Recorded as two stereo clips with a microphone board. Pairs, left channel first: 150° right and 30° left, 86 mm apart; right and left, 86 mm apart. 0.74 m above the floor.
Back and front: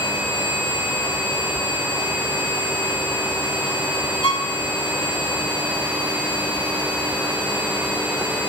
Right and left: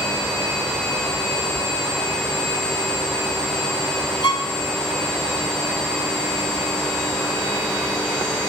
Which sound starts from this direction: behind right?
A violin, at 4.2 s.